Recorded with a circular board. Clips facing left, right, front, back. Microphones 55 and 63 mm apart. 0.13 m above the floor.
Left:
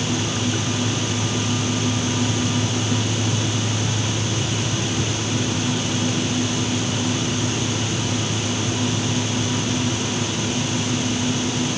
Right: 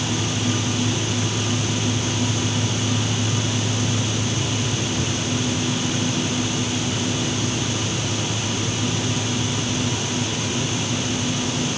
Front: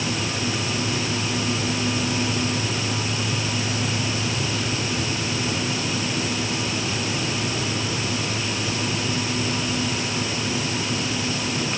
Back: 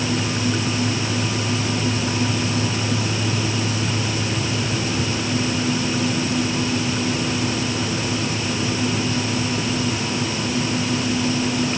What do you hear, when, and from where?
Only background noise.